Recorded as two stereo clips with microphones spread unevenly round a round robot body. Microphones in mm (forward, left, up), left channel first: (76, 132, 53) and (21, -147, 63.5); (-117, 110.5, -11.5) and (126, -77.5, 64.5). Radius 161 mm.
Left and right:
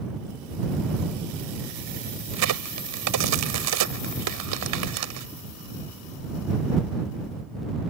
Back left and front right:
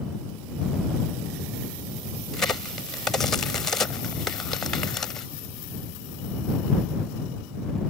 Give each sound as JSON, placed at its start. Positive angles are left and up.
{"t": 2.3, "sound": "a crack", "azimuth_deg": -135}